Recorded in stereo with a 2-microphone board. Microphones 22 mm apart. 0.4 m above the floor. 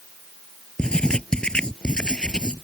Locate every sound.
0.8 s writing: 45° left (ahead or behind)